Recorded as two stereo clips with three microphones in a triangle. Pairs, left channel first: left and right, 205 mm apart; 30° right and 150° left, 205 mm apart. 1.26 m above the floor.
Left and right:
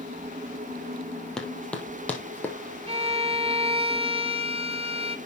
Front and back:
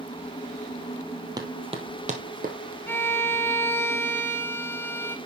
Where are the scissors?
No scissors in this recording.